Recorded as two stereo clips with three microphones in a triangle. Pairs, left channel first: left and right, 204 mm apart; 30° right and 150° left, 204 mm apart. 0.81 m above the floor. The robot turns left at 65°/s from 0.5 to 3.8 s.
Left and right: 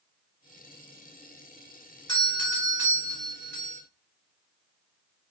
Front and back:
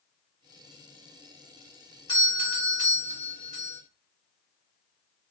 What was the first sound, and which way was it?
A doorbell, 30° left.